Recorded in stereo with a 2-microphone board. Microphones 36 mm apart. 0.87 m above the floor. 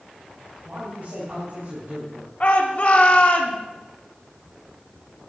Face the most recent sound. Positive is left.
turn(degrees=40)  # may be behind; listen again after turning